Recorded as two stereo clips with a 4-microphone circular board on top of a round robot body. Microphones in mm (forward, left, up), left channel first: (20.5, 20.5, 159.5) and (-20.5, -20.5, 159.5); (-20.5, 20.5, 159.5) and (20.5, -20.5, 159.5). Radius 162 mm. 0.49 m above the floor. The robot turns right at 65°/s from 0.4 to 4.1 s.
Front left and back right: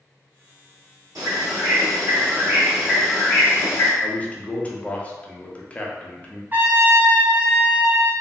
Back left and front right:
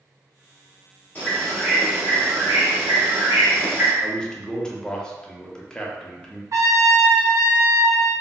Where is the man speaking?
70° left, 0.8 m; by 6.4 s 75° left, 0.8 m.